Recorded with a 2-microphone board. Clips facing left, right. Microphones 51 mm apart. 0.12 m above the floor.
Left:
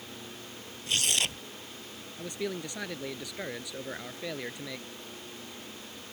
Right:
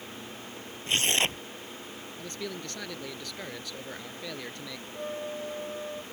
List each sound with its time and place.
0.9 s tearing paper: 30° right (ahead or behind)
2.2 s a man speaking: 15° left (ahead or behind)
4.9 s a flute: 80° right